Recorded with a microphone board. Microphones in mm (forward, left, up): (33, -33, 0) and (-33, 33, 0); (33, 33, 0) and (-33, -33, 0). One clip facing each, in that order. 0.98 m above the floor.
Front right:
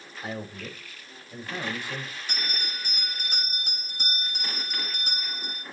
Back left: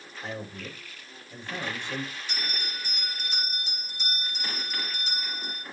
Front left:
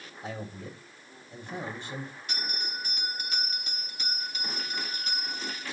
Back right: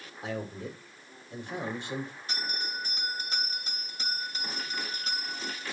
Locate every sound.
0.2 s a man speaking: 125° right, 4 m
2.3 s a bell: 80° right, 3 m